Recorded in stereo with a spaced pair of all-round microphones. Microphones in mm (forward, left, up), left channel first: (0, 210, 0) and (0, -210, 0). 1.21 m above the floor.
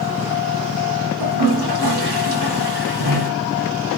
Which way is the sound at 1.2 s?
65° right (ahead or behind).